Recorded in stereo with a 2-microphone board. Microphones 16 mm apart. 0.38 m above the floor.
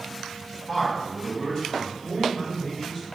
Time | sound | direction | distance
0.7 | a man speaking | 10° left (ahead or behind) | 1.2 m